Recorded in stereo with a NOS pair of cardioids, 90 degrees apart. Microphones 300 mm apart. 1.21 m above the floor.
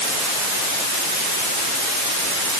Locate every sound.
Only background noise.